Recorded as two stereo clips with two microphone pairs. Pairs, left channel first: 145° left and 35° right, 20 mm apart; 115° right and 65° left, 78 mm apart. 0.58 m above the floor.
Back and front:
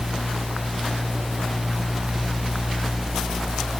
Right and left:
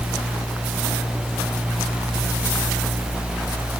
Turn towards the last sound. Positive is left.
No sound to turn to.